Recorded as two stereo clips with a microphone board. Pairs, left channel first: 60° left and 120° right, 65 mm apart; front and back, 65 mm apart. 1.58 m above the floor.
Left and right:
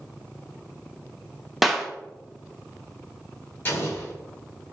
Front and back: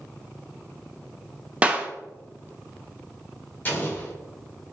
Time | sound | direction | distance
1.6 | a clap | 150° left | 0.5 m
3.6 | an explosion | 35° left | 1.4 m